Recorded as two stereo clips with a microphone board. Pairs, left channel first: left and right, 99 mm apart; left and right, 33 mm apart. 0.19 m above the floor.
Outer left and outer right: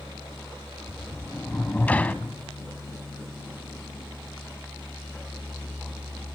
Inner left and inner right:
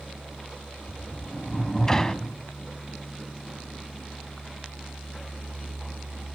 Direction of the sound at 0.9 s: 15° left (ahead or behind).